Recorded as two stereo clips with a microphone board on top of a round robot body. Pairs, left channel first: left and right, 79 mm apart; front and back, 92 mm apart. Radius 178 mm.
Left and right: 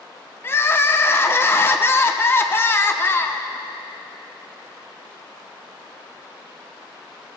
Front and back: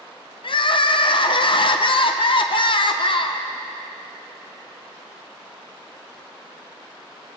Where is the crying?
30° left, 0.9 m.